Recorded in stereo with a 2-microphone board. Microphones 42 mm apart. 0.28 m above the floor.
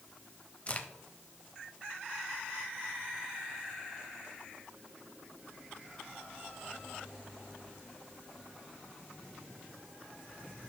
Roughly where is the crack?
Left.